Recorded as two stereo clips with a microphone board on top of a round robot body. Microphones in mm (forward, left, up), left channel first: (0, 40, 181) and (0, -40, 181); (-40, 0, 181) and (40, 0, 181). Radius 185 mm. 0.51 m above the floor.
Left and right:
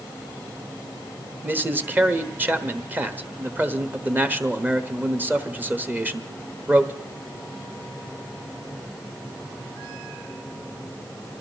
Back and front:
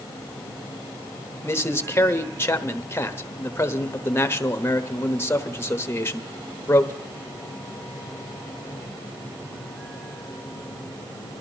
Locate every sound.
1.4 s a man speaking: 140° right, 1.3 m